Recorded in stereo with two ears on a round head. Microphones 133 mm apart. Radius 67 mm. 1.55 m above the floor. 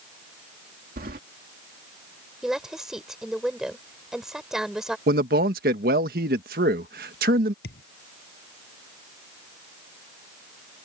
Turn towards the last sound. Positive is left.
turn(degrees=75)  # may be behind; listen again after turning